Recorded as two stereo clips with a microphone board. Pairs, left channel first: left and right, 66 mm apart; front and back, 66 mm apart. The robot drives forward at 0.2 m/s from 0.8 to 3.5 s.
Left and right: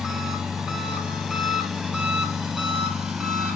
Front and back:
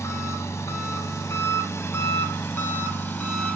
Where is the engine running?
15° right, 1.5 m; by 3.6 s 30° right, 1.1 m.